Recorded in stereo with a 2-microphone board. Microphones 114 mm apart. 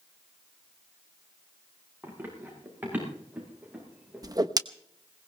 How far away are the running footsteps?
About 7 m.